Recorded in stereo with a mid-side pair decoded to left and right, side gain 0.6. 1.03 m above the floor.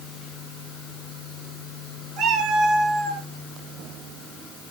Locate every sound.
2.2 s a cat meowing: 70° right, 4.5 m